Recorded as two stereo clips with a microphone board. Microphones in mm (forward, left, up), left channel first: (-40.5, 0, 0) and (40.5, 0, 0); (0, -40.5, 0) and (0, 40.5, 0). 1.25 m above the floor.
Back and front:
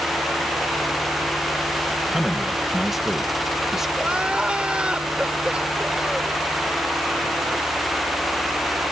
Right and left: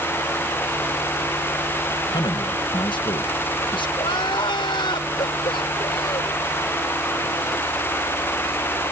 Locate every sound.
2.1 s a man speaking: 85° right
4.0 s crying: 75° right